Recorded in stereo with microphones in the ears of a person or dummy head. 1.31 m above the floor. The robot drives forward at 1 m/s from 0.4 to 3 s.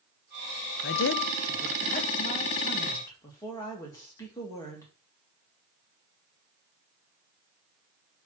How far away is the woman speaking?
About 0.7 m.